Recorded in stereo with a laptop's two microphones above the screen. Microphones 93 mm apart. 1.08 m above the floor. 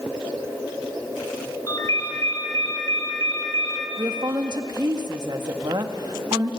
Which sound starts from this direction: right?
A woman speaking, at 4.0 s.